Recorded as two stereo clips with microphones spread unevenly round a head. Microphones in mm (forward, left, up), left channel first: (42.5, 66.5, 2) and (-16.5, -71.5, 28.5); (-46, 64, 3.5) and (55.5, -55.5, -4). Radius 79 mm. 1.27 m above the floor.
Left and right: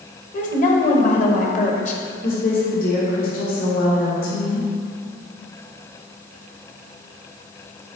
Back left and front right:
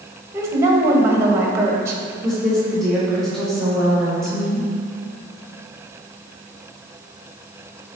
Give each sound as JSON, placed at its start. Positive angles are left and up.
{"t": 0.3, "sound": "a woman speaking", "azimuth_deg": 25, "distance_m": 1.2}
{"t": 2.2, "sound": "a woman speaking", "azimuth_deg": 45, "distance_m": 1.9}